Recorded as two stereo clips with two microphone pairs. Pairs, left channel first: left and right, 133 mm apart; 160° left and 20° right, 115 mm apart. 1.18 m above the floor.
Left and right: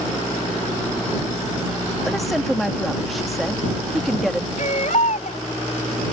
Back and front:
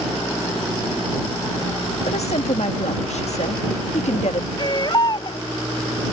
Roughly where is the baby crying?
Behind left.